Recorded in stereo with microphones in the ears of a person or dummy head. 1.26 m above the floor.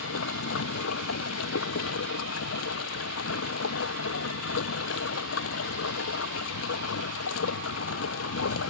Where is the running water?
85° left.